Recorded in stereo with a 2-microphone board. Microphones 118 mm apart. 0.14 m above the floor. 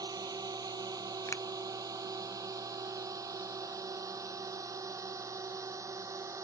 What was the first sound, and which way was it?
A drone, 35° right (ahead or behind).